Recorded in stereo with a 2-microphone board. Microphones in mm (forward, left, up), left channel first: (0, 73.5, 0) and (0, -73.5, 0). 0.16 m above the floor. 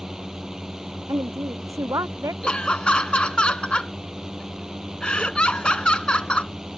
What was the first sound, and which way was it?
A drone, 5° right (ahead or behind).